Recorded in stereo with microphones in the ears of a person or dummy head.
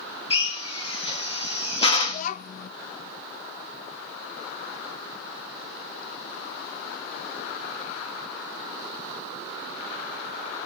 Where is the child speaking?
45° left (ahead or behind), 0.5 m.